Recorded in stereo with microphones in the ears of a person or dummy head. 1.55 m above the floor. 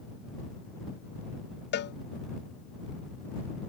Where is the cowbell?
45° left (ahead or behind).